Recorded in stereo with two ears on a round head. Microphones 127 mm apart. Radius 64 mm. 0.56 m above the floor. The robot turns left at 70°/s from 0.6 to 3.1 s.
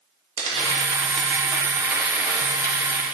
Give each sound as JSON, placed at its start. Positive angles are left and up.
{"t": 0.4, "sound": "tearing paper", "side_deg": -40, "distance_m": 1.0}